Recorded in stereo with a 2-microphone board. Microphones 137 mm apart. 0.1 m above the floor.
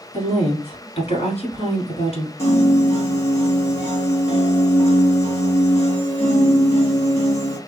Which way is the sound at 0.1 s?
50° left (ahead or behind).